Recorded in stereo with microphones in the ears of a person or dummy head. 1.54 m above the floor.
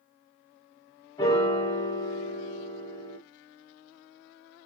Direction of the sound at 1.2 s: 20° left (ahead or behind).